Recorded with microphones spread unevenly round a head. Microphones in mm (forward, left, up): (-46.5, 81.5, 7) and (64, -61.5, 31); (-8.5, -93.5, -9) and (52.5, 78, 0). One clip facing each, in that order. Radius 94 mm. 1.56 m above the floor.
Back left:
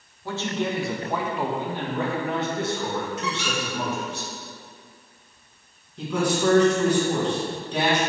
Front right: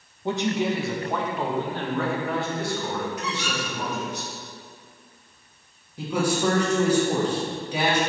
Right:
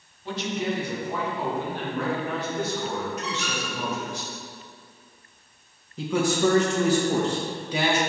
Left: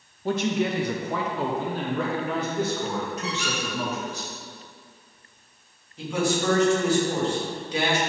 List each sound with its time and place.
0.2 s a man speaking: 20° left, 0.6 m; by 4.2 s 65° left, 2.5 m
3.2 s a squeak: 155° left, 2.5 m
6.0 s a man speaking: 135° right, 2 m